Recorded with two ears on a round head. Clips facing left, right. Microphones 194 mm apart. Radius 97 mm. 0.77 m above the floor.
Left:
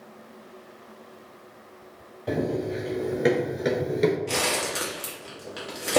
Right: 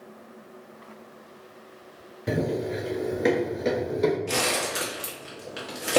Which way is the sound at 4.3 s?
5° right (ahead or behind).